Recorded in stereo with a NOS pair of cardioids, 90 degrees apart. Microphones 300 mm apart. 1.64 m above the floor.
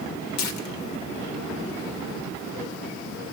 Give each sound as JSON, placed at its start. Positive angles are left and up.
{"t": 0.4, "sound": "tearing paper", "azimuth_deg": 65, "distance_m": 1.4}